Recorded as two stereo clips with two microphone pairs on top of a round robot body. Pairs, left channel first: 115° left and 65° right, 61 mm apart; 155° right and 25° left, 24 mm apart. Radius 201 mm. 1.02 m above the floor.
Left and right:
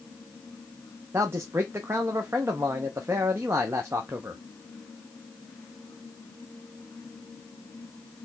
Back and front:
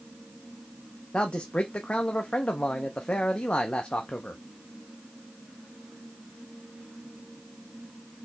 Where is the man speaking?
115° right, 0.7 m.